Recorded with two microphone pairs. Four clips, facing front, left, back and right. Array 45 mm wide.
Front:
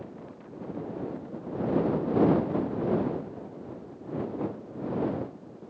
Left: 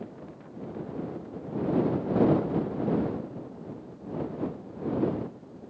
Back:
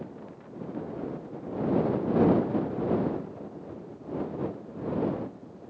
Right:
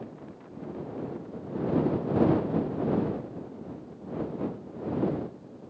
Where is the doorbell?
I don't hear a doorbell.